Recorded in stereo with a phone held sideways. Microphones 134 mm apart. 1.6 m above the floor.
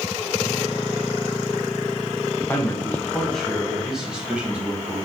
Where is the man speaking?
20° left (ahead or behind), 1.5 m; by 5.0 s 10° right (ahead or behind), 2.5 m.